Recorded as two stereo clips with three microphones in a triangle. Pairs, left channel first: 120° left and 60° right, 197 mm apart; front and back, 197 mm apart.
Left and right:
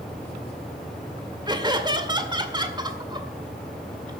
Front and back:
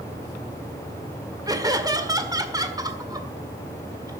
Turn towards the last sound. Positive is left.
turn(degrees=-115)